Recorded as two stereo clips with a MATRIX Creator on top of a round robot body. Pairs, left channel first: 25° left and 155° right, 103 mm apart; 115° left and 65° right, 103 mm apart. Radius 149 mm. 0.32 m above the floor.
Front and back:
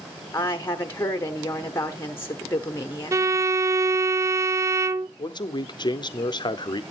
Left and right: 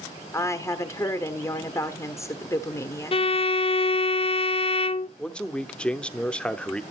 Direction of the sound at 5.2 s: 35° left.